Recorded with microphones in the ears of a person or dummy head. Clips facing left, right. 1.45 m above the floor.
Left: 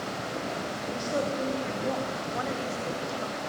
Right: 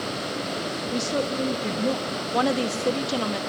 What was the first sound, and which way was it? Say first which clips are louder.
A woman speaking: right 3 dB; 55° right (ahead or behind).